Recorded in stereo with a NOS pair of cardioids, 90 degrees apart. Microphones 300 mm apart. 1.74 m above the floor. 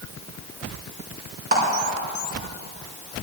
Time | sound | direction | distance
1.5 | a clap | 30° right | 5 m